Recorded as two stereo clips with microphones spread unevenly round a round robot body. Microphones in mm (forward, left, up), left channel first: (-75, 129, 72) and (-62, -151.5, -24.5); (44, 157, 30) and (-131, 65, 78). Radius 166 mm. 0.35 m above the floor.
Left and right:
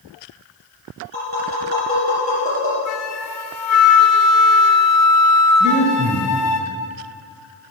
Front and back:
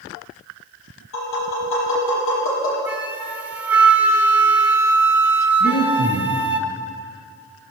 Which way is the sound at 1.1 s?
25° left.